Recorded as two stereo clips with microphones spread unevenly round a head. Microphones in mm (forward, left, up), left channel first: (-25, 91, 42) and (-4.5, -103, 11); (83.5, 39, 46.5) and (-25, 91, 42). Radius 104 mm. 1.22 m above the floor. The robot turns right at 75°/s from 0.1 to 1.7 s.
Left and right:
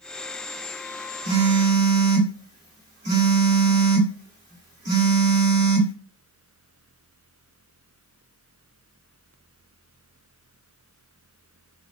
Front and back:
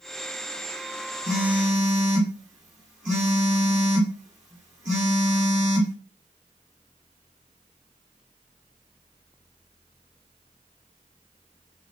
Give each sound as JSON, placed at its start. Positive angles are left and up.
{"t": 1.2, "sound": "a phone buzzing", "azimuth_deg": -155, "distance_m": 2.0}